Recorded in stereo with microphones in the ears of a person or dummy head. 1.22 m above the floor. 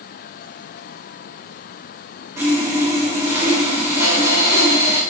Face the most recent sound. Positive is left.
turn(degrees=-15)  # may be behind; listen again after turning